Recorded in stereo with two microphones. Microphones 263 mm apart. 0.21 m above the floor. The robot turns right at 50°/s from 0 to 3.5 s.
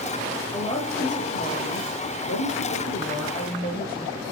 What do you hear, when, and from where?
0.5 s a woman speaking: 10° left, 5 m; by 4.2 s 160° left, 5 m